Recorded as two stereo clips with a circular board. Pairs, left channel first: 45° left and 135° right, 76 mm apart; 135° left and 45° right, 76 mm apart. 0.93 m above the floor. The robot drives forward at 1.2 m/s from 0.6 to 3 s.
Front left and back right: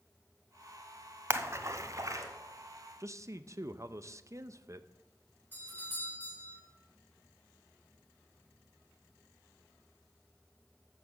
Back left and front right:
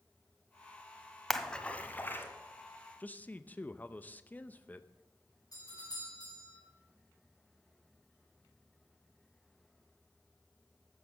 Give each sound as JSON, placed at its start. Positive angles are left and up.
{"t": 1.3, "sound": "a splash", "azimuth_deg": -135, "distance_m": 0.8}
{"t": 3.0, "sound": "a man speaking", "azimuth_deg": -165, "distance_m": 0.6}
{"t": 5.5, "sound": "a doorbell", "azimuth_deg": 105, "distance_m": 6.5}